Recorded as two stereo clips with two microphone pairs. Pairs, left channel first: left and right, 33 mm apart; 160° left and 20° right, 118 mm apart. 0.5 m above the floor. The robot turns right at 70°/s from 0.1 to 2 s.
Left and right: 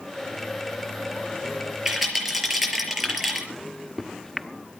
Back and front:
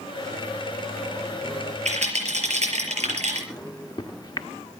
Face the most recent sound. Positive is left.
turn(degrees=160)